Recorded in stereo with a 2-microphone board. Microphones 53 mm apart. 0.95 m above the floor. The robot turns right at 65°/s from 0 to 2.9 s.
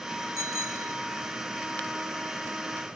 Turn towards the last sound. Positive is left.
turn(degrees=55)